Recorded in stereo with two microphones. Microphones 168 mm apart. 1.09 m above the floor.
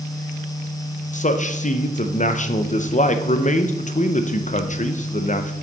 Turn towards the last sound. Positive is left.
turn(degrees=50)  # may be behind; listen again after turning